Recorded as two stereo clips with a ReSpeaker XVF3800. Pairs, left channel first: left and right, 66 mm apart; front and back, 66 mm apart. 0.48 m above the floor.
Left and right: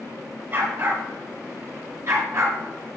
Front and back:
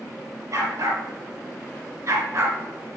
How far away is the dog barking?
About 3 m.